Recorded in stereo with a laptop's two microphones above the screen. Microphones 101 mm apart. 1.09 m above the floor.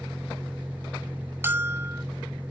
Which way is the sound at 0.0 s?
15° right (ahead or behind).